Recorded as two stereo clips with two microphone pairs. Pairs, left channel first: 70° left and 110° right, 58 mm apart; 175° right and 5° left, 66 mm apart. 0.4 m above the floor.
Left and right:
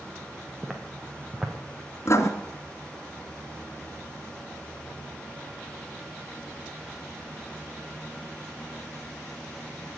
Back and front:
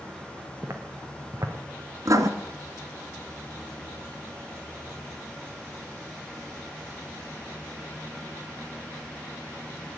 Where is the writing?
30° left, 2 m.